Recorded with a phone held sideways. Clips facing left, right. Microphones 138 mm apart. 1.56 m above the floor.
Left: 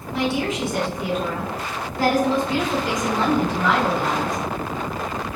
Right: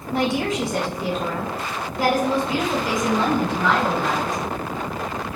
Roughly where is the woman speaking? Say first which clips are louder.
Right 1 dB; right.